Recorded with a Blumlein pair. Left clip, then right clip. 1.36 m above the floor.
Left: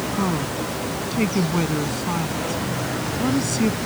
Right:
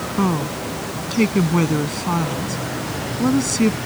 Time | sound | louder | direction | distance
0.2 | a woman speaking | right 5 dB | 15° right | ?